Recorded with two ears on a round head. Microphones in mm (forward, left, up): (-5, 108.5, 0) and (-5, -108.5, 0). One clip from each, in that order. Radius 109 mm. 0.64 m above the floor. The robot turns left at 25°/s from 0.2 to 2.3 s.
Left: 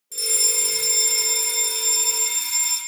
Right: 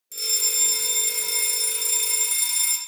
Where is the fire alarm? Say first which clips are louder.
Left 2 dB; 10° right (ahead or behind), 1.7 m; by 2.8 s 25° right (ahead or behind), 1.7 m.